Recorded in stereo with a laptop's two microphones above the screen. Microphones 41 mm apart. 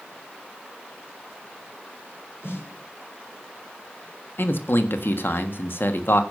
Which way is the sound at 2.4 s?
80° left.